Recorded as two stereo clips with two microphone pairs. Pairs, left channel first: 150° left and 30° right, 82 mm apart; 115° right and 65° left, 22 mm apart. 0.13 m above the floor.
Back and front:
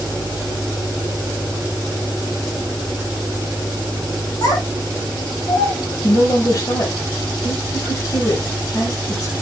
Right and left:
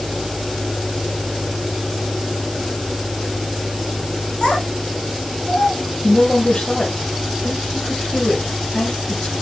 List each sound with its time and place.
4.4 s a child speaking: 175° right, 5.5 m; by 5.9 s 165° right, 5.5 m
6.0 s a woman speaking: 170° right, 4 m